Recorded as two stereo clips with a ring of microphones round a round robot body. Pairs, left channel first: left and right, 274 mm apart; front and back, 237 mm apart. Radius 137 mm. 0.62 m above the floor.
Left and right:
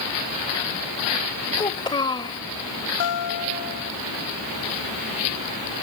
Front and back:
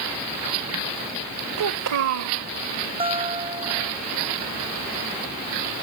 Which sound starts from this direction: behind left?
A guitar, at 3.0 s.